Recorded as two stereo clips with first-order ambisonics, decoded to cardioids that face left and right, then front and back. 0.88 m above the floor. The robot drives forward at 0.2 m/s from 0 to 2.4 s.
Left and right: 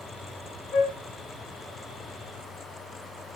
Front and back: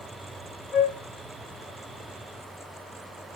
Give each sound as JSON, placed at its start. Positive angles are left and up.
{"t": 0.7, "sound": "a flute", "azimuth_deg": 65, "distance_m": 0.6}